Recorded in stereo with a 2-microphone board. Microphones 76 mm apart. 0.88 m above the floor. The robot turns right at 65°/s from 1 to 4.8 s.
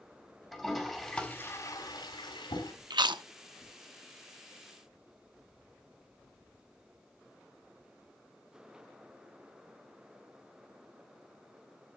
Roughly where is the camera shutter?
No camera shutter in this recording.